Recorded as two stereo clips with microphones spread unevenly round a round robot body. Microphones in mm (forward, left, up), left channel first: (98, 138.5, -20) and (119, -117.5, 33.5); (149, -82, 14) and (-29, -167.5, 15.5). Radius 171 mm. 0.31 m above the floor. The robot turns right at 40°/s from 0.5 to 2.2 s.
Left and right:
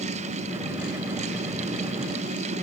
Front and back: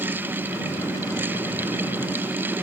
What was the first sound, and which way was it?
Only background noise.